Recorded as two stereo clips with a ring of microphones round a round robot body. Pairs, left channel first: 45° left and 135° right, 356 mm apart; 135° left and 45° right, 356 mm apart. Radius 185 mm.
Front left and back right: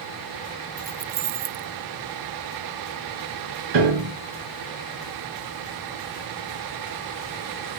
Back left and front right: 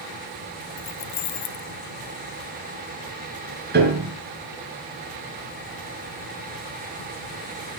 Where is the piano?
110° right, 5.5 m.